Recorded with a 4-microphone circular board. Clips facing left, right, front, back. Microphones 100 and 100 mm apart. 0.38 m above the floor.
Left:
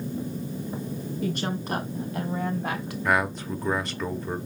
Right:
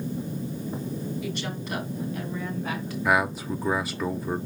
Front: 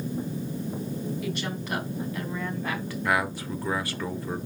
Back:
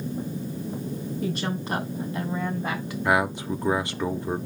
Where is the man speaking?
170° right, 0.8 m.